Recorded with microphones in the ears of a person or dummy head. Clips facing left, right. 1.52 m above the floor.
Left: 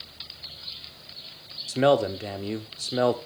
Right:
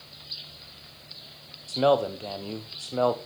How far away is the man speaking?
About 0.7 m.